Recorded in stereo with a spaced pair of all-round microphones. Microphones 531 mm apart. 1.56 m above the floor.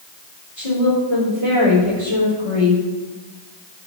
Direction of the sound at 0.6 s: 80° left.